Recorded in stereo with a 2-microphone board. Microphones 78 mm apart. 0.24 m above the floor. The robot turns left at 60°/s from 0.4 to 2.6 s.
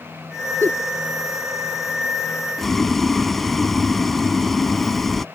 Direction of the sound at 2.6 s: 5° left (ahead or behind).